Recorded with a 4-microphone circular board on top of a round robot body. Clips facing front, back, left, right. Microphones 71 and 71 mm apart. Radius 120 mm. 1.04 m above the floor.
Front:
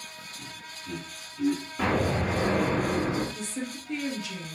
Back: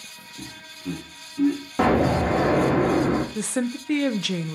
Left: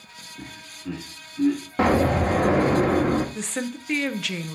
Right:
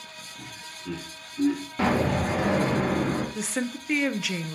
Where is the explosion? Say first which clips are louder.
Back 8 dB, left 4 dB; 150° left, 1.0 m.